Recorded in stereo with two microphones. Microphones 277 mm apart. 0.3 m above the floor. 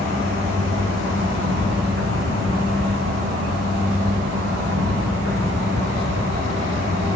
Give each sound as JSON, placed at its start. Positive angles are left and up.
{"t": 0.0, "sound": "an insect", "side_deg": -55, "distance_m": 5.5}